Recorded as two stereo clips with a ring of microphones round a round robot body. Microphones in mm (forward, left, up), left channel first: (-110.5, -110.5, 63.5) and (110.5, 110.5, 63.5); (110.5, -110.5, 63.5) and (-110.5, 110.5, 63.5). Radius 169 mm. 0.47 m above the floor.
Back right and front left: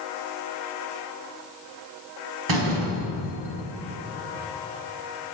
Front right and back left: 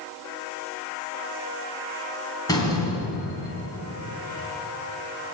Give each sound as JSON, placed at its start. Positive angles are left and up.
{"t": 2.5, "sound": "a door slam", "azimuth_deg": 35, "distance_m": 4.0}